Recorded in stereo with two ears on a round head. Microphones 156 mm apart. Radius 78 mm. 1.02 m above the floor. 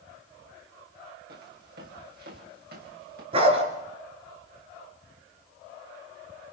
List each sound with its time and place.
1.3 s footsteps: 65° right (ahead or behind), 7.5 m; by 3.2 s 60° right (ahead or behind), 8.5 m
3.3 s a dog barking: 35° right (ahead or behind), 4 m